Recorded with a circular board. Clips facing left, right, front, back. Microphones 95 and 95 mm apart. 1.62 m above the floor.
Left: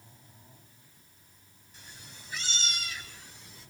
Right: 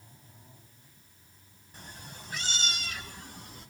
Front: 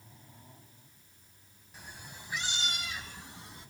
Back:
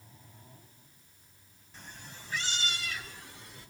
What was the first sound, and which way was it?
A cat meowing, 80° right.